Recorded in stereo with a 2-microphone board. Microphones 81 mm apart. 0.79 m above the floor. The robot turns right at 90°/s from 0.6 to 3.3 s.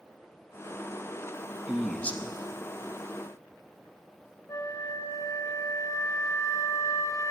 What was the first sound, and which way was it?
A man speaking, 15° right.